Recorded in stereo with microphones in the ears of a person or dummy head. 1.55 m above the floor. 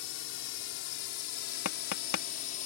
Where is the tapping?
75° left (ahead or behind).